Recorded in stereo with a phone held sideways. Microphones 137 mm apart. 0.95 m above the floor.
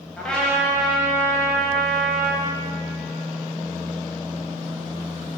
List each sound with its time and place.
0.2 s a trumpet: 5° left (ahead or behind), 0.8 m